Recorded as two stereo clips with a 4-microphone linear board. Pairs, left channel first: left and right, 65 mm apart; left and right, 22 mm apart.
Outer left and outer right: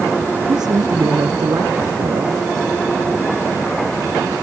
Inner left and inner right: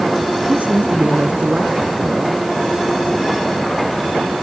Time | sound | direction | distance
0.5 | a man speaking | 85° right | ?